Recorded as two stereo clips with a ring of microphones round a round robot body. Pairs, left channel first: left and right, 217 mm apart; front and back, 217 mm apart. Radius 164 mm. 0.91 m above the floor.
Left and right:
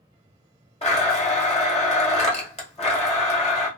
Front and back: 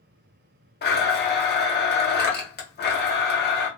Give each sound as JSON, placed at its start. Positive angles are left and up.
{"t": 0.8, "sound": "a blender", "azimuth_deg": 30, "distance_m": 1.2}